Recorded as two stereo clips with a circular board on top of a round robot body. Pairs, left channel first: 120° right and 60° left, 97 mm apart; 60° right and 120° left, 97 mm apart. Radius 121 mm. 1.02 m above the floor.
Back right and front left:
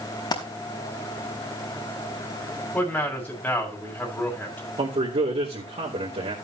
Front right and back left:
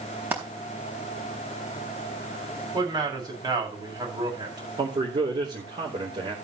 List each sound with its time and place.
0.3 s a dropped coin: 170° right, 4.5 m
2.7 s a man speaking: 165° left, 7.5 m
4.8 s a man speaking: 85° left, 4 m